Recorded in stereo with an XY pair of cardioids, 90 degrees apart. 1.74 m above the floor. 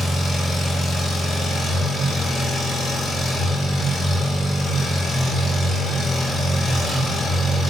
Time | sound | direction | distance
0.0 | an engine running | 65° left | 1.9 m